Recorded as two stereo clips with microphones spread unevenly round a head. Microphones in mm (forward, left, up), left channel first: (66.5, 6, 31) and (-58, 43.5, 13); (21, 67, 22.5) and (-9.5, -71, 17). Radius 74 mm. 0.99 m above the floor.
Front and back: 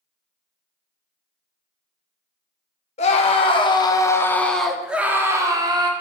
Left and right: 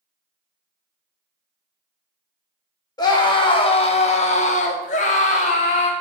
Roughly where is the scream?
Ahead.